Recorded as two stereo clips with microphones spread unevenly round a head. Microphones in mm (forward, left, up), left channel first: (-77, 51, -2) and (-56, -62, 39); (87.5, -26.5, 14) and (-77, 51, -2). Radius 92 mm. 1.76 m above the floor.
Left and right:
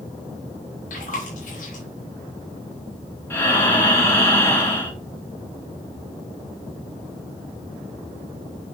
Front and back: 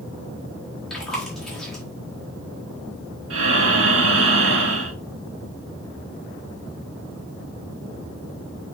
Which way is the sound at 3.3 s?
175° left.